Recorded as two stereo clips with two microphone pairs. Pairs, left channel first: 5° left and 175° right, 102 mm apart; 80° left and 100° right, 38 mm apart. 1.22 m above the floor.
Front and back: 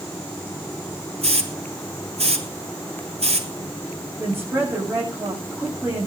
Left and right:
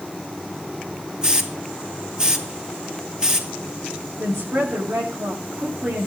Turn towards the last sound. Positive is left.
turn(degrees=-105)